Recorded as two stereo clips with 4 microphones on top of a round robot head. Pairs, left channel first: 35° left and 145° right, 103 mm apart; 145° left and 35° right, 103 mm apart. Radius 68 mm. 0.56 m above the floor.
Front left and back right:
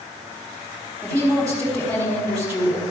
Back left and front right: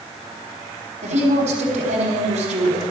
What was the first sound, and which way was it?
A woman speaking, 50° right.